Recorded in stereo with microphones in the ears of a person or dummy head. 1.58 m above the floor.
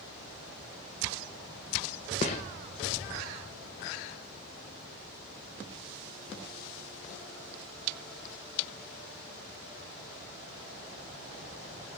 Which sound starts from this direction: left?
A gunshot, at 2.2 s.